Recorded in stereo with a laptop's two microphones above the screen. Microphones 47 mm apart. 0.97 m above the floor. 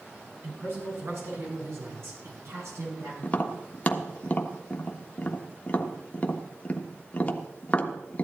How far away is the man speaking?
About 9 m.